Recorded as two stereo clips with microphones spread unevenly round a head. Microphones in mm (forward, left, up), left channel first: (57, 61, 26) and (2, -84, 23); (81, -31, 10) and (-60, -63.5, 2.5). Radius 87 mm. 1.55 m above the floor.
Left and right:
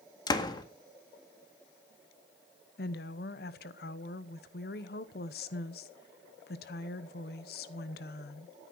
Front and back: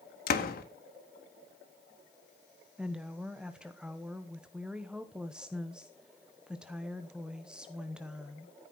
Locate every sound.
0.3 s a door slam: 5° left, 1.7 m
2.8 s a woman speaking: 105° left, 1.0 m